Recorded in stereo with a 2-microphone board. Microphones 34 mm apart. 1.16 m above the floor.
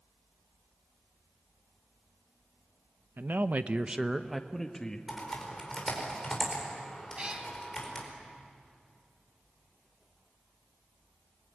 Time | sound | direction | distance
3.2 | a man speaking | 75° right (ahead or behind) | 1.0 m
5.1 | typing on a keyboard | 10° left (ahead or behind) | 4.5 m
7.2 | a cat meowing | 30° right (ahead or behind) | 2.5 m